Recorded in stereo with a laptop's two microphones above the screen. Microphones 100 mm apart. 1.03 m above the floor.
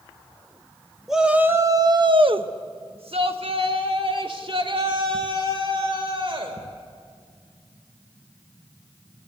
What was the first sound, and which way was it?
A shout, 5° right (ahead or behind).